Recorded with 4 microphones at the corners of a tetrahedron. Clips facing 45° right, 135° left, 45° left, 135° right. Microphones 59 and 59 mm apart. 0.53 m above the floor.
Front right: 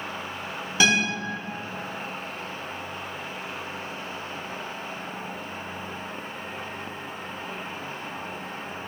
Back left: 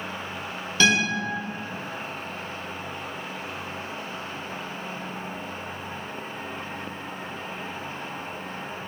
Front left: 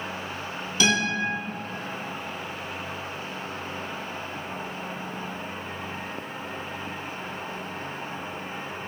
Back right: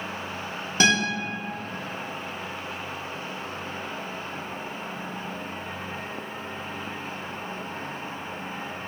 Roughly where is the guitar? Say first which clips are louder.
Back left 1 dB, back right 2 dB; behind right.